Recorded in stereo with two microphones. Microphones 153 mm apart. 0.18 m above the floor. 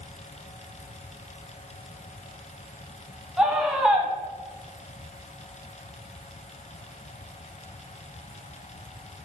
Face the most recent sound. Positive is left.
turn(degrees=-5)  # may be behind; listen again after turning